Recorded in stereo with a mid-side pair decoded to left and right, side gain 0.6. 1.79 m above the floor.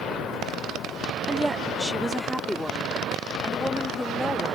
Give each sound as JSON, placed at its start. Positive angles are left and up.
{"t": 1.3, "sound": "a woman speaking", "azimuth_deg": -5}